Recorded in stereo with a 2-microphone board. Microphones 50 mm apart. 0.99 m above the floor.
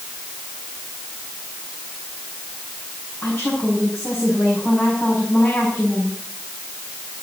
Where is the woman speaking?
40° left (ahead or behind), 7 m.